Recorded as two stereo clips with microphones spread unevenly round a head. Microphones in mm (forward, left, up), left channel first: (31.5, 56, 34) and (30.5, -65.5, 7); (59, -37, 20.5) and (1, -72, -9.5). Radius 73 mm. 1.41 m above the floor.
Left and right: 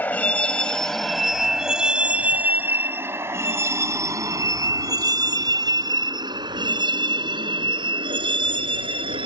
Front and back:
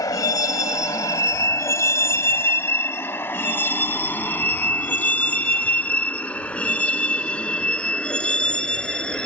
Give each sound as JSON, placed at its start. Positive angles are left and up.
{"t": 0.0, "sound": "a vehicle", "azimuth_deg": 15}